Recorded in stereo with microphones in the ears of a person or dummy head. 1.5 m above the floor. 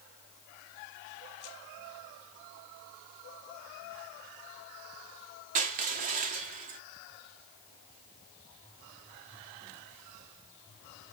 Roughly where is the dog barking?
I don't hear a dog barking.